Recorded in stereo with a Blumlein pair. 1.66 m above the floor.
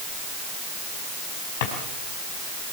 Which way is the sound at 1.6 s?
50° left.